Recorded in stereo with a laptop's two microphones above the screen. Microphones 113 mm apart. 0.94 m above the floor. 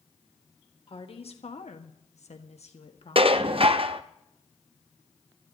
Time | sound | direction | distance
0.9 | a woman speaking | 45° left (ahead or behind) | 1.5 m
3.1 | dishes clattering | 50° right (ahead or behind) | 0.7 m